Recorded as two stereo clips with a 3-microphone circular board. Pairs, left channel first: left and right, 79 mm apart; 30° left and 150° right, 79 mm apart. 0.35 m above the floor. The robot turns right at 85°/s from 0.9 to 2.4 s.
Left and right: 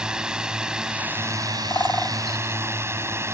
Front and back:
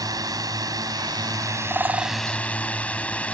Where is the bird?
140° left; by 2.2 s straight behind.